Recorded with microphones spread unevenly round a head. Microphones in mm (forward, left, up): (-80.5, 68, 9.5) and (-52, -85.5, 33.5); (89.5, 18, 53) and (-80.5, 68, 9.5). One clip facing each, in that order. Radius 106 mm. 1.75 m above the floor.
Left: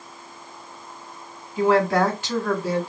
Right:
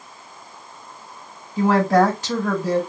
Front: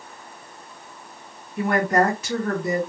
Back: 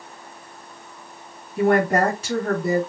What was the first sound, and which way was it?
A woman speaking, 130° right.